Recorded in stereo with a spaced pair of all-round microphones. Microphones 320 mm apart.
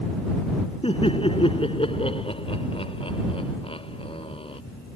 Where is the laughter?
15° left (ahead or behind).